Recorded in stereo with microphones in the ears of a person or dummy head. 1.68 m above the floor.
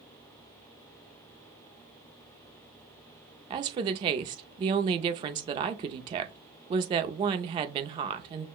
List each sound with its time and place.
3.5 s a woman speaking: 30° right (ahead or behind), 0.5 m